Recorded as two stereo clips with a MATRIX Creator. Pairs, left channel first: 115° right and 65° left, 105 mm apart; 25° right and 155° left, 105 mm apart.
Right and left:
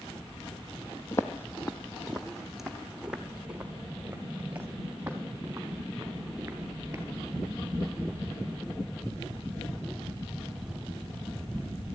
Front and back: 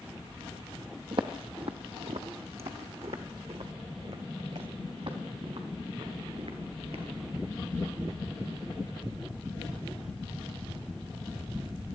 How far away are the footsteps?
About 0.9 m.